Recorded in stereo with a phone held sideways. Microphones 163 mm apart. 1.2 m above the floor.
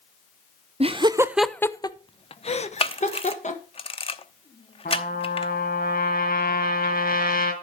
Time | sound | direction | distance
0.8 | laughter | 40° right (ahead or behind) | 0.6 m
2.8 | a camera shutter | 35° left (ahead or behind) | 0.7 m
4.8 | a trumpet | 65° left (ahead or behind) | 3 m